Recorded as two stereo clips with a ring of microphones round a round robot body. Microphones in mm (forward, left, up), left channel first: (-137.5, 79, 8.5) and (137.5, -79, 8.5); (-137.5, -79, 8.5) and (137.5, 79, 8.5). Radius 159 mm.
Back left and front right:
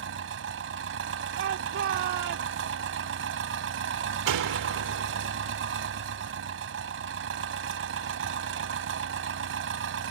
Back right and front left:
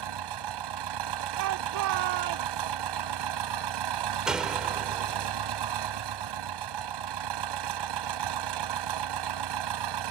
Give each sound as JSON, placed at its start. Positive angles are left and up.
{"t": 0.0, "sound": "an engine running", "azimuth_deg": 20}
{"t": 1.4, "sound": "a shout", "azimuth_deg": 15}
{"t": 4.3, "sound": "a door slam", "azimuth_deg": -55}